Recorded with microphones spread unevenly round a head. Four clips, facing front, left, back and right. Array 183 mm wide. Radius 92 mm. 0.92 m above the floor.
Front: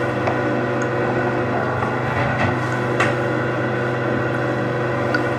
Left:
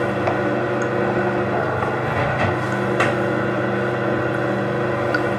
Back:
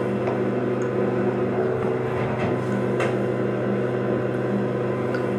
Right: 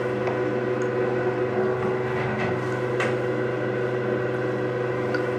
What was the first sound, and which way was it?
Running water, 55° left.